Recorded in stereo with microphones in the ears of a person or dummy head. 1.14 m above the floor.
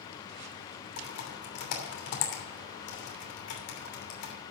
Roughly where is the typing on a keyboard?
Left.